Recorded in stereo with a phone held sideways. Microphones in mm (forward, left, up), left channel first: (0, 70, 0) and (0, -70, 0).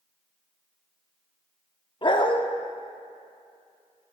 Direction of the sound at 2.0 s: 35° left (ahead or behind).